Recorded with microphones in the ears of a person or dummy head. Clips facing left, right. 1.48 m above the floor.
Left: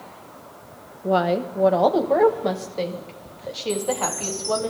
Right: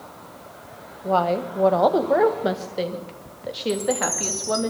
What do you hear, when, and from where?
1.0 s a woman speaking: 20° left (ahead or behind), 1.0 m; by 4.7 s 25° right (ahead or behind), 2.5 m
3.7 s a chime: 35° right (ahead or behind), 4.5 m